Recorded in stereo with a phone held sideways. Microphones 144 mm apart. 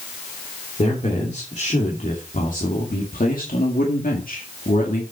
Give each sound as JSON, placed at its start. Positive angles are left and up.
{"t": 0.8, "sound": "a man speaking", "side_deg": 50, "distance_m": 3.0}